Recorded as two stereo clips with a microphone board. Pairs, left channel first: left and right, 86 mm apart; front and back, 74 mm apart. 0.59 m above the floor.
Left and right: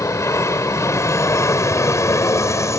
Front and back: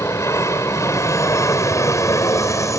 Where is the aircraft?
40° left.